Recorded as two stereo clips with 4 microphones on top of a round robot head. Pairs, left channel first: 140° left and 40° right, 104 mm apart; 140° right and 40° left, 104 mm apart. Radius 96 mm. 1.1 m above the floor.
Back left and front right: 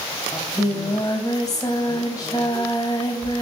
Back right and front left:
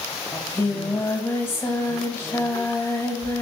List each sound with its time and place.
0.3 s singing: 170° left, 0.9 m